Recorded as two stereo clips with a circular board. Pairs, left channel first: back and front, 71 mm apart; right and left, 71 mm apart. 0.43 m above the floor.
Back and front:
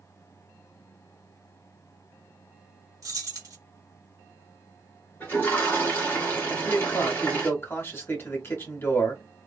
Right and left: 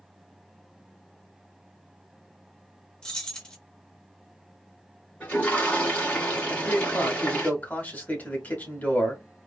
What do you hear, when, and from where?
3.0 s keys jangling: 15° right, 0.8 m
5.2 s a toilet flushing: 140° right, 1.7 m
6.5 s a man speaking: 145° right, 1.1 m